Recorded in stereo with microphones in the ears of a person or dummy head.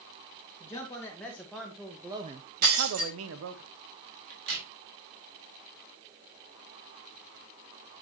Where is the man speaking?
15° left (ahead or behind), 2 m; by 3.6 s 60° right (ahead or behind), 1.2 m.